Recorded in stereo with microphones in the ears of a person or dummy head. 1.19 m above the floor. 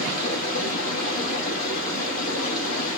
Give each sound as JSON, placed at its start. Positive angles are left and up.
{"t": 0.0, "sound": "running water", "side_deg": 40, "distance_m": 1.2}